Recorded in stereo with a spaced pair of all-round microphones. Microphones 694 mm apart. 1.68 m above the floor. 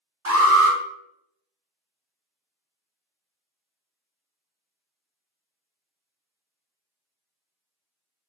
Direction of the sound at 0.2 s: 55° right (ahead or behind).